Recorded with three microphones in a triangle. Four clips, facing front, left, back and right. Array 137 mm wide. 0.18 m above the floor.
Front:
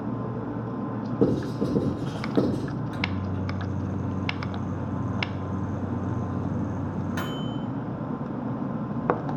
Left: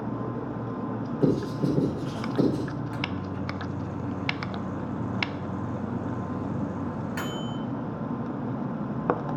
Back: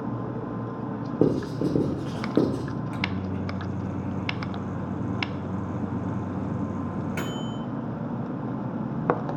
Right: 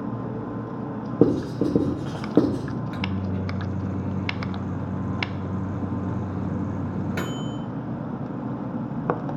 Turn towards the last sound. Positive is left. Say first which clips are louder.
# right 3 dB, even
turn(degrees=-110)